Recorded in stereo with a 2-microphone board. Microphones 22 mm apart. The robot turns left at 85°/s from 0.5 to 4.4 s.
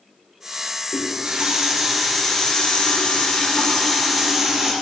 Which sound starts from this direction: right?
A running tap, at 0.9 s.